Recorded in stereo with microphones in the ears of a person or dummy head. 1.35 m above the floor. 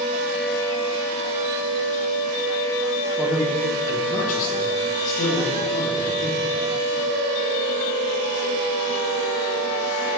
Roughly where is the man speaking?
Centre.